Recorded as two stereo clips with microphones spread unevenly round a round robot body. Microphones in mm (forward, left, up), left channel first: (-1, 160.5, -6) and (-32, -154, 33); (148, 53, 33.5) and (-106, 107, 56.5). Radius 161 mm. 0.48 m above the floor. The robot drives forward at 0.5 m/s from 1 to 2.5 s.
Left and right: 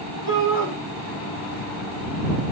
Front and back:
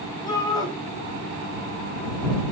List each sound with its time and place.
0.3 s a shout: 65° left, 4 m